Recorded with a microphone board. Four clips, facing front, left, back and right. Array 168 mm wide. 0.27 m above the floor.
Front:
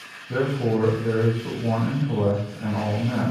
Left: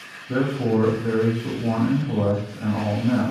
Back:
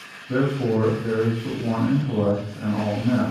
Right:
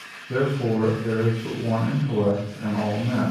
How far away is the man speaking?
About 1.1 m.